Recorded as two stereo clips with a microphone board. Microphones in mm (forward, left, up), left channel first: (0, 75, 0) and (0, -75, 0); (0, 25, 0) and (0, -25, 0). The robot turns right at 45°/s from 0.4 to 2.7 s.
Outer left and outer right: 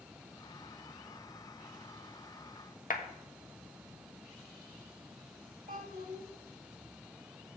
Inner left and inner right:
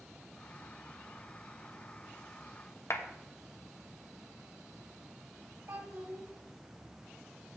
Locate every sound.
2.9 s a clap: 60° left (ahead or behind), 1.3 m
5.7 s a child speaking: 65° right (ahead or behind), 5.5 m